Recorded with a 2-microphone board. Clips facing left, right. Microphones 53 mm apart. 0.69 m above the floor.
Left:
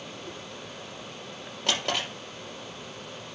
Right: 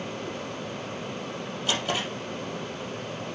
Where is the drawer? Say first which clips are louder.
Even; 70° left (ahead or behind), 4.5 m.